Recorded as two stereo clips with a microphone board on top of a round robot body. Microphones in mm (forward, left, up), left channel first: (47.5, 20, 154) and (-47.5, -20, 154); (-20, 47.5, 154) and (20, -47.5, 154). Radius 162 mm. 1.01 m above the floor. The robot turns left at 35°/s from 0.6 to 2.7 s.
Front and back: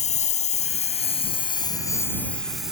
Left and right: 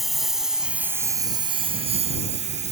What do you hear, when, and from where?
0.0 s a lawn mower: 25° left; by 2.7 s 70° right